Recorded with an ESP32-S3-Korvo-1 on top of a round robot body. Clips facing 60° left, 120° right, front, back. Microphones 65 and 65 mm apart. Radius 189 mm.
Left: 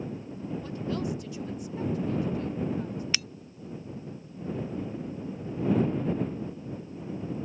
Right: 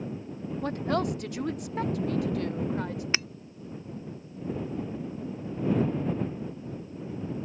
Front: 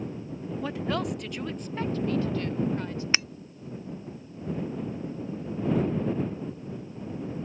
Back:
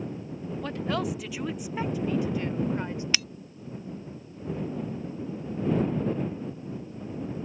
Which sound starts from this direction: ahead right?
Breaking glass, at 3.1 s.